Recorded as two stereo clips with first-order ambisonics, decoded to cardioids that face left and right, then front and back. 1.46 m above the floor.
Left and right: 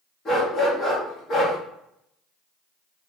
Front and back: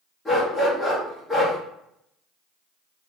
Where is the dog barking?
80° left, 0.9 m.